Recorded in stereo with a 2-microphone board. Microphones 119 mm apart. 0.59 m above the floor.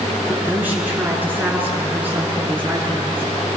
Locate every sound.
0.3 s a woman speaking: 15° right (ahead or behind), 7.5 m